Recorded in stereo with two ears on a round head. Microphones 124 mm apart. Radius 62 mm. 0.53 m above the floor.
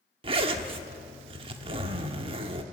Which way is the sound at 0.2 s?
40° right (ahead or behind).